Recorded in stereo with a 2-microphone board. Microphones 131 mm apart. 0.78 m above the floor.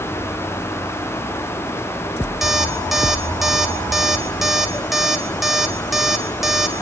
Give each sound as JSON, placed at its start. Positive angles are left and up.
{"t": 2.4, "sound": "an alarm clock", "side_deg": 0, "distance_m": 2.0}